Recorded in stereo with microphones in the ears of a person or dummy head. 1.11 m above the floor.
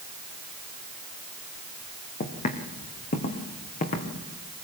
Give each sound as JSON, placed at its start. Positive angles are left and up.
{"t": 2.2, "sound": "footsteps", "side_deg": 40, "distance_m": 3.0}